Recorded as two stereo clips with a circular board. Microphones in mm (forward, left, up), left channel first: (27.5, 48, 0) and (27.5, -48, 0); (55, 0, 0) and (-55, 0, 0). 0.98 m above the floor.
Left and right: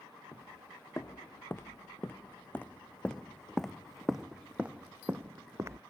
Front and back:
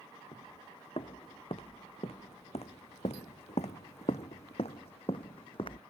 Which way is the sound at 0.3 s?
30° left.